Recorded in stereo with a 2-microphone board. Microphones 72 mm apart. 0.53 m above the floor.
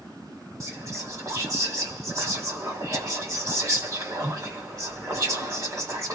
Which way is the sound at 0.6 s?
45° right (ahead or behind).